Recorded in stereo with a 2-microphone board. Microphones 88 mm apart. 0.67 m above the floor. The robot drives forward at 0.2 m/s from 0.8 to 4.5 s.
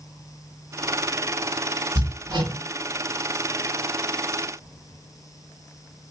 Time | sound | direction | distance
1.9 | hammering | 65° right (ahead or behind) | 2.5 m